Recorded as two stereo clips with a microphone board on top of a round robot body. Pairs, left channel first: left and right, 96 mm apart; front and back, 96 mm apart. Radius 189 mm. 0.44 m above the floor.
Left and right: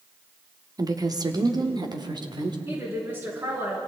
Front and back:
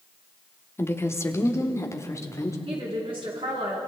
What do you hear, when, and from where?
0.8 s a woman speaking: 55° right, 1.8 m
2.6 s a woman speaking: 155° right, 7 m